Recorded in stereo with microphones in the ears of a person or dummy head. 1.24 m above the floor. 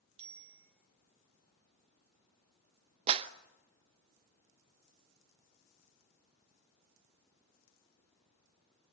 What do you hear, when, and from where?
0.2 s a bicycle bell: 35° right (ahead or behind), 5 m
3.1 s a clap: 35° right (ahead or behind), 0.8 m